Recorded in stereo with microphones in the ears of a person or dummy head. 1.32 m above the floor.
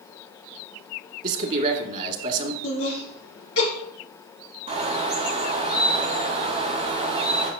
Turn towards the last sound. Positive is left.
turn(degrees=-35)  # may be behind; listen again after turning